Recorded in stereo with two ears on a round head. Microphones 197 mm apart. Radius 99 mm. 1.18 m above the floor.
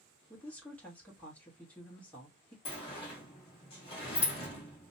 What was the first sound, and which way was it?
A woman speaking, 5° left (ahead or behind).